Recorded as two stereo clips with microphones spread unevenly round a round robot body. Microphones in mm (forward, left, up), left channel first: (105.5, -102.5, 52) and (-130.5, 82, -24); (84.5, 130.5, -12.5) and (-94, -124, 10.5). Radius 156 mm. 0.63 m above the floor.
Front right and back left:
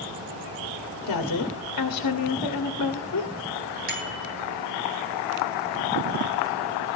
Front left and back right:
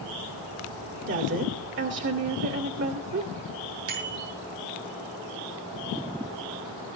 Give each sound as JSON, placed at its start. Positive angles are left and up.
{"t": 1.1, "sound": "a woman speaking", "azimuth_deg": -75, "distance_m": 2.0}
{"t": 3.9, "sound": "a bicycle bell", "azimuth_deg": -160, "distance_m": 5.5}